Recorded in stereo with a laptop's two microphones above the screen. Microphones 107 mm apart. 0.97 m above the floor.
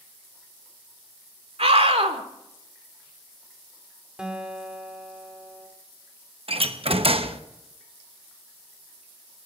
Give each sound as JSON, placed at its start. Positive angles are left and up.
{"t": 1.6, "sound": "a scream", "side_deg": -75, "distance_m": 2.5}
{"t": 4.2, "sound": "a guitar", "side_deg": -10, "distance_m": 3.0}
{"t": 6.5, "sound": "a door slam", "side_deg": -65, "distance_m": 0.8}